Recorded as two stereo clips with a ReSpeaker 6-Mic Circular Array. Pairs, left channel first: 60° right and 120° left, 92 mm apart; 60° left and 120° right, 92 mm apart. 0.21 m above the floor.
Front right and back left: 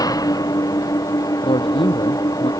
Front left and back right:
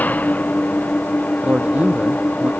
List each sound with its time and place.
0.0 s an engine running: 10° right
1.4 s a man speaking: 45° right